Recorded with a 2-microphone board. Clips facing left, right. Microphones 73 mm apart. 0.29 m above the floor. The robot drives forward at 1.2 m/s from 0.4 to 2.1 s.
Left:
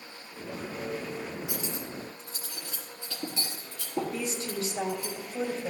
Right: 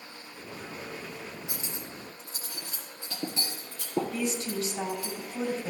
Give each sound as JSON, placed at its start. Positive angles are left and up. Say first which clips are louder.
{"t": 1.5, "sound": "cutlery clinking", "louder": "left 4 dB", "side_deg": -30, "distance_m": 3.5}
{"t": 4.1, "sound": "a woman speaking", "louder": "right 2 dB", "side_deg": 35, "distance_m": 1.8}